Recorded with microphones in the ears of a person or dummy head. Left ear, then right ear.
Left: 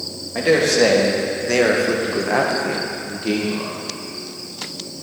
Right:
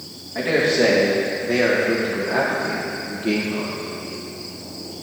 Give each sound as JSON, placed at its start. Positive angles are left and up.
{"t": 0.3, "sound": "a man speaking", "side_deg": 80, "distance_m": 2.0}